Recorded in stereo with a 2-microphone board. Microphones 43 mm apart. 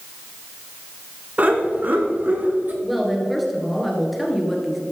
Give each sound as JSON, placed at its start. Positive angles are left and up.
{"t": 1.4, "sound": "laughter", "side_deg": -35, "distance_m": 1.7}
{"t": 2.8, "sound": "a woman speaking", "side_deg": 0, "distance_m": 2.0}